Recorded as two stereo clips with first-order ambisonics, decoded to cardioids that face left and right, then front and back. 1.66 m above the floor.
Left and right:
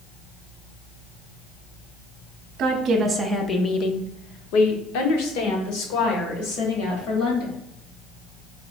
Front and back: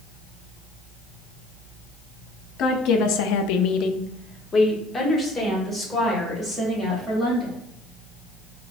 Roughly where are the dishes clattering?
I don't hear dishes clattering.